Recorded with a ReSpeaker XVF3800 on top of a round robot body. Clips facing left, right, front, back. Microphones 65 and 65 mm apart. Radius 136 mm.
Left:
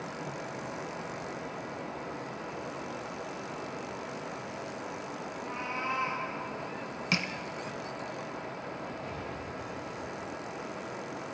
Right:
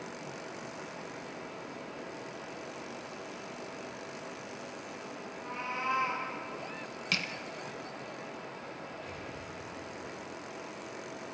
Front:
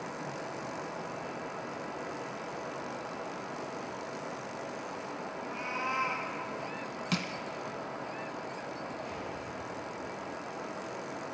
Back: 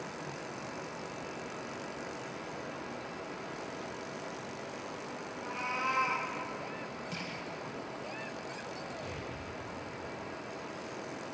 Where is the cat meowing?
175° left, 9.5 m.